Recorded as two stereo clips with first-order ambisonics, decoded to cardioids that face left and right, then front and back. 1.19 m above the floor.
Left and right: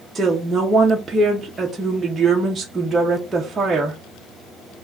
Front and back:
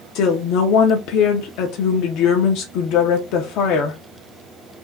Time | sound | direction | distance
0.1 | a woman speaking | 10° right | 0.7 m